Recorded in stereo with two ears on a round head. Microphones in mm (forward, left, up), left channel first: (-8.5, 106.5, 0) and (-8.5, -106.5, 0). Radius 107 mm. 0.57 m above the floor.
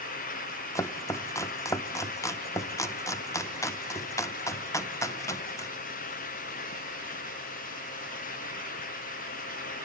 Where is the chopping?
15° left (ahead or behind), 0.6 m.